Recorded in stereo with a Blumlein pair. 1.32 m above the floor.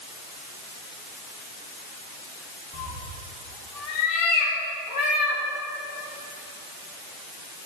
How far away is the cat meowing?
About 2 m.